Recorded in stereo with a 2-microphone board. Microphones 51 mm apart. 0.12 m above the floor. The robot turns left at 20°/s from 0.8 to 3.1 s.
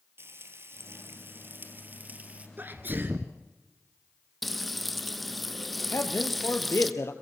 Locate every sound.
0.2 s frying: 115° right, 3 m; by 2.5 s 150° right, 3 m
2.6 s a sneeze: 40° right (ahead or behind), 1.4 m
4.4 s frying: centre (ahead or behind), 1.1 m
5.9 s a man speaking: 60° left (ahead or behind), 2.5 m